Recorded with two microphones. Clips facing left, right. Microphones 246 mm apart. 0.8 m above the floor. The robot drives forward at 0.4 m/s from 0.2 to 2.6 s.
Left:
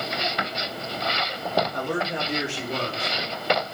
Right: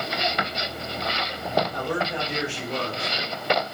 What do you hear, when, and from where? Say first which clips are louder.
1.7 s a man speaking: even; 45° left (ahead or behind), 1.7 m; by 3.6 s 40° left (ahead or behind), 1.9 m